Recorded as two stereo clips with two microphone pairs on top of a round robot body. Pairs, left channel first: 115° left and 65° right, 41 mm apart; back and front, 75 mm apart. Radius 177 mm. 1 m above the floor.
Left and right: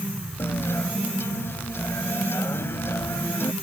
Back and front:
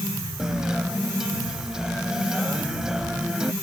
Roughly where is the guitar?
Left.